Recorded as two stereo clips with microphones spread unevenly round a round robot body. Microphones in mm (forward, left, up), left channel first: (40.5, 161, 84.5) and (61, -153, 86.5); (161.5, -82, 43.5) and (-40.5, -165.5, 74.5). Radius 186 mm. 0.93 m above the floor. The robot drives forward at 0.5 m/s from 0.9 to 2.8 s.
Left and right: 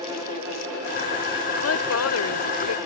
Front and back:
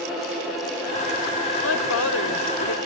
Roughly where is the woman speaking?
Ahead left.